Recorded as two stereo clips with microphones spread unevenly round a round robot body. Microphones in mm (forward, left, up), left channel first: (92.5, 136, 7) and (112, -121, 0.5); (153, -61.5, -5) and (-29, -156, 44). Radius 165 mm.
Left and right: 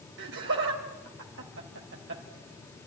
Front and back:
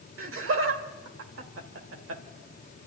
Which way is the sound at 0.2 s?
135° right.